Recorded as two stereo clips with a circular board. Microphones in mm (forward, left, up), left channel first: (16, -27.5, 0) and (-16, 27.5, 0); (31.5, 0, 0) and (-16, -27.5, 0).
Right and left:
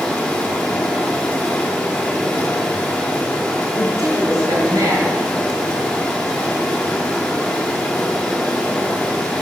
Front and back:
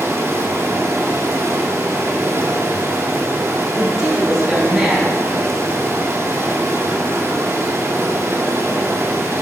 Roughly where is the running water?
Behind right.